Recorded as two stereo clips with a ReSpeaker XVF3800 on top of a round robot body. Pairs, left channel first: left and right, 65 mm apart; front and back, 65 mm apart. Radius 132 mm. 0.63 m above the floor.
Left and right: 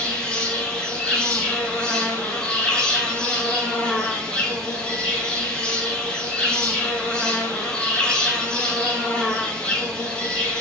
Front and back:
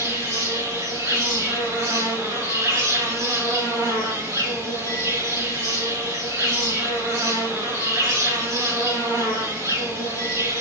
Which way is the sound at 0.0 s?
165° left.